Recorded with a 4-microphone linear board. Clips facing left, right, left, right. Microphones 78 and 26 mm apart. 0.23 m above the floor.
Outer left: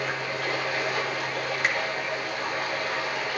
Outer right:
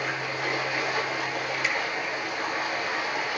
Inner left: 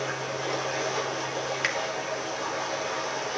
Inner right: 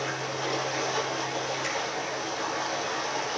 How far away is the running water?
About 6 m.